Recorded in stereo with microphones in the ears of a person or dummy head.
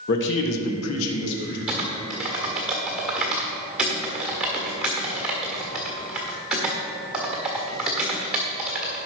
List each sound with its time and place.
0.1 s a man speaking: 50° left (ahead or behind), 1.6 m; by 1.6 s 60° left (ahead or behind), 2.5 m
1.7 s typing on a keyboard: centre (ahead or behind), 1.4 m